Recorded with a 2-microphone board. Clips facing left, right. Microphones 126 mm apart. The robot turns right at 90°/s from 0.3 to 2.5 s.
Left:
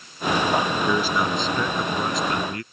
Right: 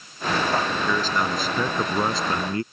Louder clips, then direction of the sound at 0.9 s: Left 2 dB; 15° left (ahead or behind).